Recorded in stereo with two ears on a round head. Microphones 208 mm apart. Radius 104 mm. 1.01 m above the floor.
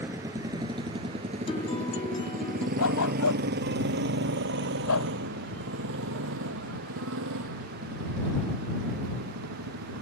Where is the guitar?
25° left (ahead or behind).